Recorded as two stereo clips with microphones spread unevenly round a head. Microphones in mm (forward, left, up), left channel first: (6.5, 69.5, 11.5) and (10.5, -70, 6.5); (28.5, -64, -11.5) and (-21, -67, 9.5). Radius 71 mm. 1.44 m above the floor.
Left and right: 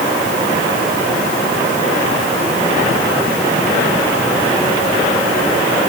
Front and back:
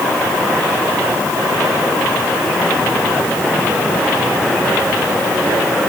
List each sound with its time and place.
Only background noise.